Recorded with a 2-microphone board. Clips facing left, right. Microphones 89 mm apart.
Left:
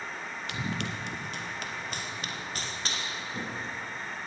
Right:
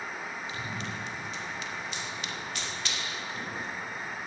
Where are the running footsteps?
70° left (ahead or behind), 3 m; by 3.8 s 30° left (ahead or behind), 4.5 m.